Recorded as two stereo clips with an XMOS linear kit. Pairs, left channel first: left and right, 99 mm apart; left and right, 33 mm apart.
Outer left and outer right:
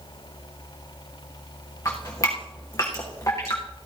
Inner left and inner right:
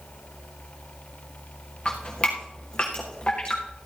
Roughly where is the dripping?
Left.